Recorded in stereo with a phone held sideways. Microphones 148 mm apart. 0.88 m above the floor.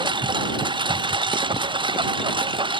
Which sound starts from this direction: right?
A lawn mower, at 0.0 s.